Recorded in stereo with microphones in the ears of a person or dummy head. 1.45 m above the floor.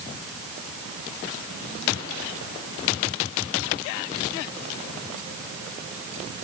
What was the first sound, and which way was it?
Only background noise.